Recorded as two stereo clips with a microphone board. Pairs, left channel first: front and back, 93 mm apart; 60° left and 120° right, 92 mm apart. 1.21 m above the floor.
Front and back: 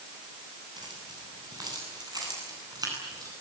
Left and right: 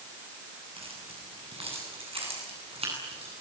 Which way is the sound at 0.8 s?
135° right.